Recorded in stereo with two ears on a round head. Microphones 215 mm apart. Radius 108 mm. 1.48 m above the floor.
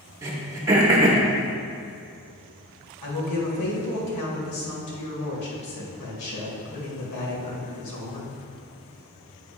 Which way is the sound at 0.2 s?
15° right (ahead or behind).